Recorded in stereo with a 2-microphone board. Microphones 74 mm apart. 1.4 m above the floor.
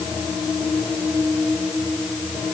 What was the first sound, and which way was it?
Only background noise.